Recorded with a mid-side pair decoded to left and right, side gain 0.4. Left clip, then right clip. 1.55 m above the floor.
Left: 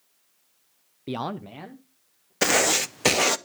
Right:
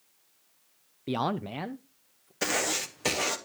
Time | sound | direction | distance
1.1 | a man speaking | 10° left | 0.5 m
2.4 | writing | 60° left | 0.7 m